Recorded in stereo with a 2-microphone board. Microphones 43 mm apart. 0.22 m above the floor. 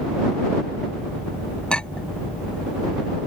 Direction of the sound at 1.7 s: 25° left (ahead or behind).